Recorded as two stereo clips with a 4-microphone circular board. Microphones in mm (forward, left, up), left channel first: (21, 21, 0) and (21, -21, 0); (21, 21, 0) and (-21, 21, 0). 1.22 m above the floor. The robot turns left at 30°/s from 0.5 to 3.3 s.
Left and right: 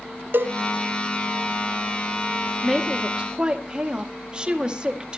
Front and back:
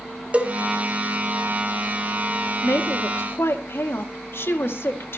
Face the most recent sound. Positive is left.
turn(degrees=-25)